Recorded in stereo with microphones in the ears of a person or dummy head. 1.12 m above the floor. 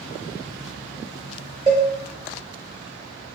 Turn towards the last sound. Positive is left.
turn(degrees=-25)  # may be behind; listen again after turning